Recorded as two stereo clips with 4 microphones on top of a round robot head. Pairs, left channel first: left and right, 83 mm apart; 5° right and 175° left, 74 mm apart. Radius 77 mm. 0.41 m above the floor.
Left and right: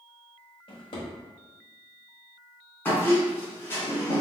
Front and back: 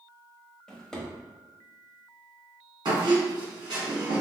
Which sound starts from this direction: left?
A drawer, at 0.7 s.